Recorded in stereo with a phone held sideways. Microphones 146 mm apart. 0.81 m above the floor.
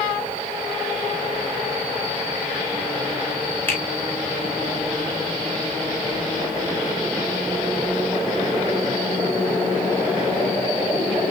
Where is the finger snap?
15° left (ahead or behind), 1.7 m.